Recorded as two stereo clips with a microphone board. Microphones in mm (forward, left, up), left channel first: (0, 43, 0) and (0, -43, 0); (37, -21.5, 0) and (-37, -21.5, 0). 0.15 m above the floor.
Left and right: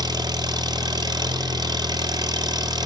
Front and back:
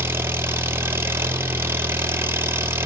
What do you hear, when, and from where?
0.0 s an engine running: 125° right, 1.6 m